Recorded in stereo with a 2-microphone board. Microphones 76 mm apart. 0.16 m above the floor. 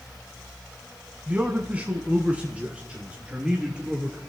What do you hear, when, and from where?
1.3 s a man speaking: 20° right (ahead or behind), 1.0 m; by 4.2 s 15° right (ahead or behind), 2.5 m